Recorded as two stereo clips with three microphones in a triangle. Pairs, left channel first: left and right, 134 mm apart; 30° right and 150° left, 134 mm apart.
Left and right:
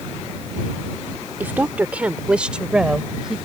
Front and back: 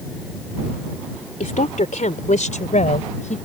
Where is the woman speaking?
15° right; by 3.4 s 5° right.